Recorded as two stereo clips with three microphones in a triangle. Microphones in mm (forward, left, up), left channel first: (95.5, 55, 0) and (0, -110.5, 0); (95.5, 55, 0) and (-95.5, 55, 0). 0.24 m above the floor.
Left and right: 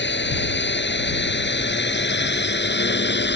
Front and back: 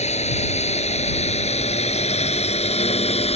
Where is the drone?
55° left.